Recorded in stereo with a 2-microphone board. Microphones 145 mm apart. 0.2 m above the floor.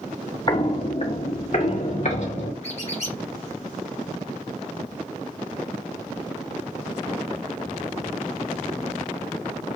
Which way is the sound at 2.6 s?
50° left (ahead or behind).